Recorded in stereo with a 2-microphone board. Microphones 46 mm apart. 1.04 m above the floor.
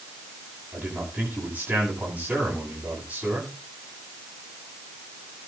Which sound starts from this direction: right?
A man speaking, at 0.7 s.